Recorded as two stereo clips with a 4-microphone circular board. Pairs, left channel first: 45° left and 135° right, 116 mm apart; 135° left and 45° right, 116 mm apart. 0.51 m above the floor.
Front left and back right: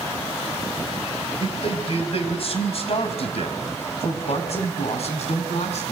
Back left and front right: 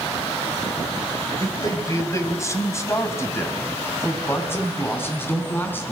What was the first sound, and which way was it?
A man speaking, 75° left.